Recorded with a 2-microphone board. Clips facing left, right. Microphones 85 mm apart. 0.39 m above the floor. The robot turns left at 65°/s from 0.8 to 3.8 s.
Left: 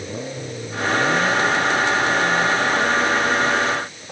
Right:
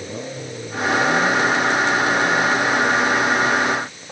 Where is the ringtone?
No ringtone in this recording.